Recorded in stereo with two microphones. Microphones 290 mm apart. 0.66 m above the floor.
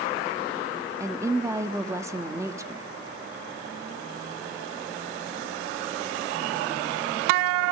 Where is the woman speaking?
10° right (ahead or behind), 1.4 m.